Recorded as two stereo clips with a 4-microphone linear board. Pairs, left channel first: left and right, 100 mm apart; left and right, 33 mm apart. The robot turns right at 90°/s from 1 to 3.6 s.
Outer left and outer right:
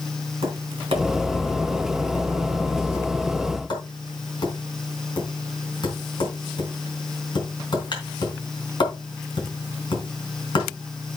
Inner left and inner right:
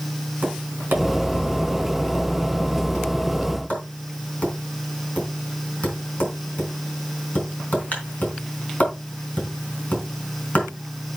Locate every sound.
0.4 s tapping: 70° right (ahead or behind), 4 m; by 10.7 s 50° left (ahead or behind), 4 m